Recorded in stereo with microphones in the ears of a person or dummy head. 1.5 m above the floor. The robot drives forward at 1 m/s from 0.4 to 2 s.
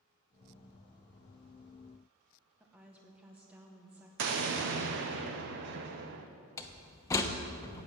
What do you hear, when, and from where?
2.6 s a woman speaking: 5° right (ahead or behind), 1.1 m
4.2 s an explosion: 60° right (ahead or behind), 0.8 m
6.6 s a door slam: 20° left (ahead or behind), 0.9 m